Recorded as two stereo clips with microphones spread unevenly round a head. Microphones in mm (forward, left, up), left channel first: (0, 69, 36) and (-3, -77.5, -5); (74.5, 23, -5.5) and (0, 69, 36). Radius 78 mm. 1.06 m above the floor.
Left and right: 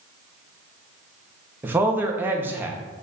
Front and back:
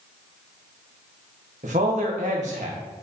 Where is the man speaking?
170° right, 1.0 m.